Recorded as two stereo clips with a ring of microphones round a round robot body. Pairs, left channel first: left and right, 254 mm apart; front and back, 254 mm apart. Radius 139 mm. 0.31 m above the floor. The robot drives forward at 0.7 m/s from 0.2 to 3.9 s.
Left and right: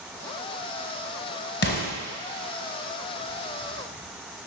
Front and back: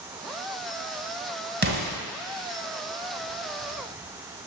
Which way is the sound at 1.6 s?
130° left.